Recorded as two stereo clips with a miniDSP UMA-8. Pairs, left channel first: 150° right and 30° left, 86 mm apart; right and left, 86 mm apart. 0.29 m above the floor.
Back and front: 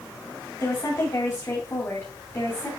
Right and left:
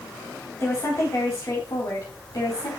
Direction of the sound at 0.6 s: 125° right.